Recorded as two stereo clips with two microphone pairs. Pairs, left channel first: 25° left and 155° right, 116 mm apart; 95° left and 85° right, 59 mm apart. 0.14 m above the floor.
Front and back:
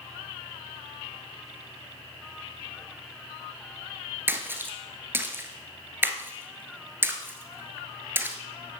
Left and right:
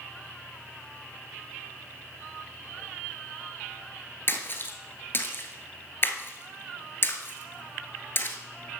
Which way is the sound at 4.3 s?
135° left.